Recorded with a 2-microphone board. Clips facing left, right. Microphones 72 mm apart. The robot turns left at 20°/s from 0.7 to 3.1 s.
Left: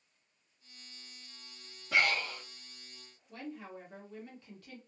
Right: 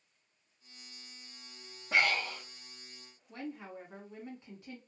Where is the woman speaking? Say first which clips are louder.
Right 1 dB; 20° right (ahead or behind), 1.5 m.